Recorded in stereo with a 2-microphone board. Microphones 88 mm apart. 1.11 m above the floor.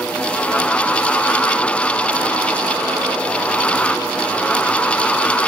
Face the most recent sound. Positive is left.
No sound to turn to.